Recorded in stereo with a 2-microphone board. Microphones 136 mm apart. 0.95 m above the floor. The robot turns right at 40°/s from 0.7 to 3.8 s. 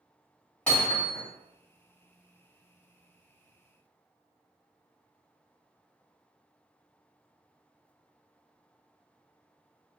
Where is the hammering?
10° left (ahead or behind), 2.0 m; by 1.2 s 35° left (ahead or behind), 2.0 m.